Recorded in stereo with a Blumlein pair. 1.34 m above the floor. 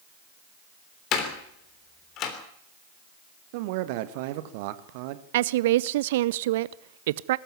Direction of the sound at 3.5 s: 50° right.